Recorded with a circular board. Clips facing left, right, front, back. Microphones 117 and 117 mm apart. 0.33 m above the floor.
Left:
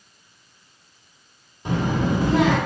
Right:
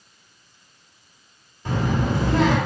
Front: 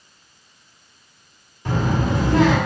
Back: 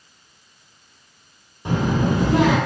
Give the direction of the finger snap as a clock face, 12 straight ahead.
No finger snap in this recording.